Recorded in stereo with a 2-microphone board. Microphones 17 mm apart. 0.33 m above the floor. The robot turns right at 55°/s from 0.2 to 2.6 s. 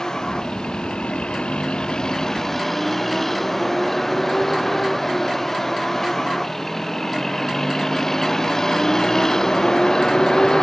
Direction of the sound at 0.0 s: 35° left (ahead or behind).